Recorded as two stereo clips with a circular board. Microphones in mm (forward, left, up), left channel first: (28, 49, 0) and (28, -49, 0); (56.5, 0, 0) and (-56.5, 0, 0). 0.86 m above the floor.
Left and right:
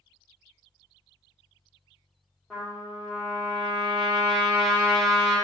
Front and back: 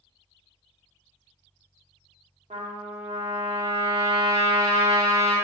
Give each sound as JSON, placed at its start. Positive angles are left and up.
{"t": 2.5, "sound": "a trumpet", "azimuth_deg": 175, "distance_m": 1.0}